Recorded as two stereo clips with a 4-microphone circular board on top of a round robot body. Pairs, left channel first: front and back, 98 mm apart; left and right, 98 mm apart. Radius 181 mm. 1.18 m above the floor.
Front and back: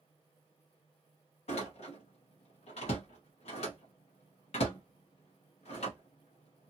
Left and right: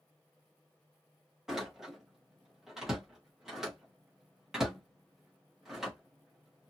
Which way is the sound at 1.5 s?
5° right.